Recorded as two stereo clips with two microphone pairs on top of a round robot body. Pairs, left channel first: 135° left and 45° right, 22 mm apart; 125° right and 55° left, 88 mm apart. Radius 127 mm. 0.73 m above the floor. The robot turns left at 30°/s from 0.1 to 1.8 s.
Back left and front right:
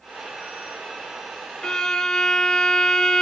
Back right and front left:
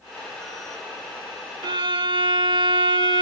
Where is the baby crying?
No baby crying in this recording.